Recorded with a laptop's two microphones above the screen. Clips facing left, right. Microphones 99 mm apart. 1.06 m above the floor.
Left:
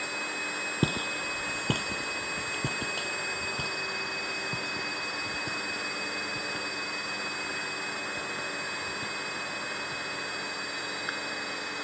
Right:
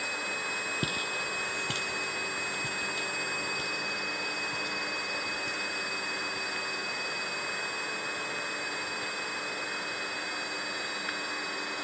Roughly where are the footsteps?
Left.